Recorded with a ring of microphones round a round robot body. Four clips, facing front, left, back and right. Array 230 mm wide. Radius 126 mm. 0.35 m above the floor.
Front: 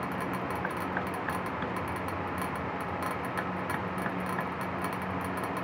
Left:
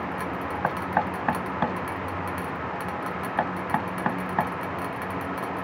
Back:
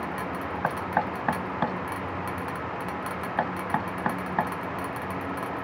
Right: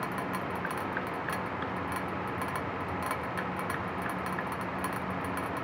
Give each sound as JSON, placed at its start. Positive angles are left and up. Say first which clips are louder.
{"t": 0.6, "sound": "knocking", "louder": "left 8 dB, back 6 dB", "azimuth_deg": 130}